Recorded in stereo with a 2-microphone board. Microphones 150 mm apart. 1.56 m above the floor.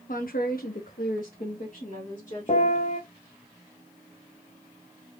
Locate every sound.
0.1 s a woman speaking: 60° left (ahead or behind), 0.7 m; by 2.9 s 40° left (ahead or behind), 1.9 m
2.5 s a piano: 45° left (ahead or behind), 1.0 m